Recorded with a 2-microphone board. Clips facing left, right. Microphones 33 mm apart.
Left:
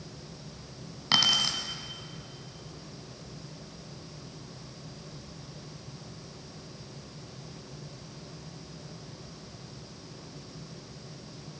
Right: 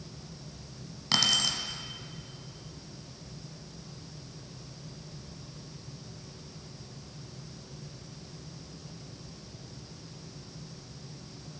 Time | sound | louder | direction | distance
1.1 | keys jangling | left 2 dB | 20° left (ahead or behind) | 1.1 m